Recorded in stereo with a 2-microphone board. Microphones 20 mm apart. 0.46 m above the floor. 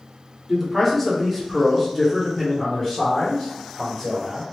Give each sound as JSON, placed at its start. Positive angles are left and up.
{"t": 0.5, "sound": "a man speaking", "side_deg": 0, "distance_m": 1.5}